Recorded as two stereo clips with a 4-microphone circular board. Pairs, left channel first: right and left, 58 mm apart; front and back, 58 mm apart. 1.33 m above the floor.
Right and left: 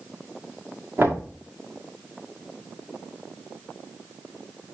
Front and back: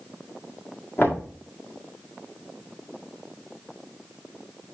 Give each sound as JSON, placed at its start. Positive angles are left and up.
{"t": 1.0, "sound": "knocking", "azimuth_deg": 45, "distance_m": 1.7}